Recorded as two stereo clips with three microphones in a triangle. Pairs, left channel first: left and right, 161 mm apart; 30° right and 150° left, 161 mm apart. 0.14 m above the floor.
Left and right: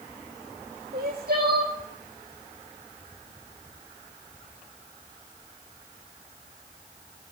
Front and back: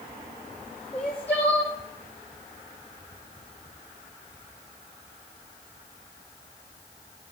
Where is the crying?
110° right, 3.5 m.